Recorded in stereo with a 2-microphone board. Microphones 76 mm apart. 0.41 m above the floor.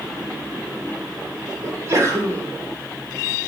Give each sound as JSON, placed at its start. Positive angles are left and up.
{"t": 1.6, "sound": "a sneeze", "side_deg": -45, "distance_m": 1.4}